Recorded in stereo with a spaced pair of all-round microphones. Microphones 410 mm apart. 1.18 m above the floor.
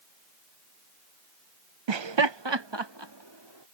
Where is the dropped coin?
No dropped coin in this recording.